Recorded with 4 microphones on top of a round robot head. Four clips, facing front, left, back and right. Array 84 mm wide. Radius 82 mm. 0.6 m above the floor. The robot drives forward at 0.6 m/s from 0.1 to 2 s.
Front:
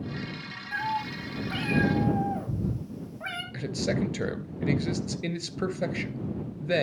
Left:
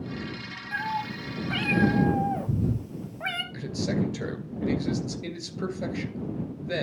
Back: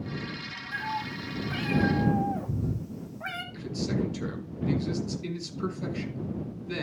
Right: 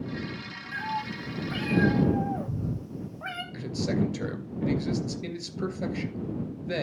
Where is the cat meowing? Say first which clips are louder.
Left 2 dB, front 3 dB; 65° left, 2.0 m; by 3.4 s 90° left, 1.8 m.